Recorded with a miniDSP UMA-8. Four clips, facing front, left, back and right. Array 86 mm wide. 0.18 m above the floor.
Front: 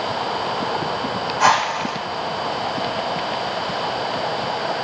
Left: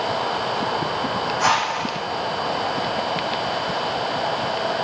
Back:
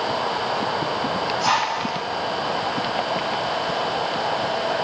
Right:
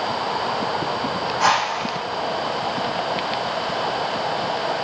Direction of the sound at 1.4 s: 10° right.